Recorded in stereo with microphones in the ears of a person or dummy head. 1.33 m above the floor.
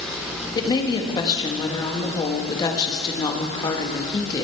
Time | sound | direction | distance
0.6 | a woman speaking | 20° left (ahead or behind) | 1.7 m